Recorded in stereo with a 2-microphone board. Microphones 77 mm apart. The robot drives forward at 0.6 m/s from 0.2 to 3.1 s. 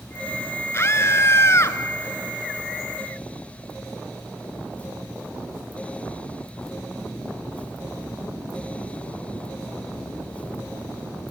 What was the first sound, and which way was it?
A scream, 35° left (ahead or behind).